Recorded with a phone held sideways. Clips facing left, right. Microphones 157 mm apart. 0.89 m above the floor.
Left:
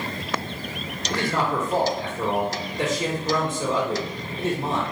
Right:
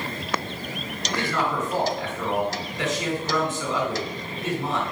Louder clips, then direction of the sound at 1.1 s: Left 2 dB; 30° left (ahead or behind).